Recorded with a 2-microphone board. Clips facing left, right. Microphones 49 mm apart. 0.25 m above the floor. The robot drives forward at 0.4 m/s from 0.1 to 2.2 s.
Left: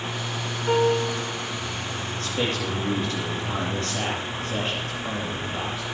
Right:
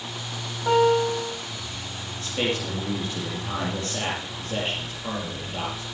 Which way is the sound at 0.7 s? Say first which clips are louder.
Right 2 dB; 75° right (ahead or behind).